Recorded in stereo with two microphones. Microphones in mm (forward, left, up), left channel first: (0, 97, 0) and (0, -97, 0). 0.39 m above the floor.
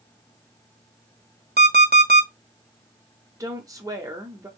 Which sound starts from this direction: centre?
A woman speaking, at 3.4 s.